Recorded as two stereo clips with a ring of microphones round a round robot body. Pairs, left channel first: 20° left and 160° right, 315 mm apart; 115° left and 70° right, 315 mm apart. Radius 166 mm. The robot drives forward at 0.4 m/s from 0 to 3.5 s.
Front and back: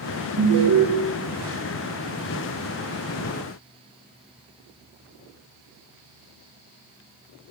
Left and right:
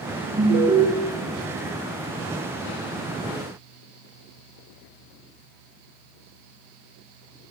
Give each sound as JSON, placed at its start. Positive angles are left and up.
{"t": 0.4, "sound": "an alarm", "azimuth_deg": -130, "distance_m": 1.4}